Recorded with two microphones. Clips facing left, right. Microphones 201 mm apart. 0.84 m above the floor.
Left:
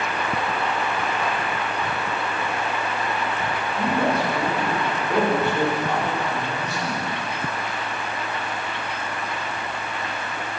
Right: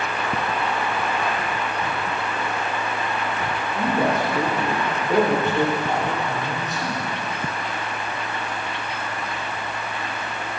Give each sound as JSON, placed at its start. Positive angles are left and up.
{"t": 3.8, "sound": "a man speaking", "side_deg": -20, "distance_m": 3.0}